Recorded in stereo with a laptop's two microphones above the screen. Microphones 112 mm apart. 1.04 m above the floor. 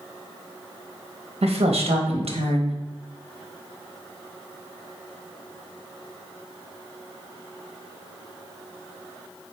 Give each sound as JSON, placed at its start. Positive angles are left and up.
{"t": 1.4, "sound": "a woman speaking", "side_deg": -75, "distance_m": 1.0}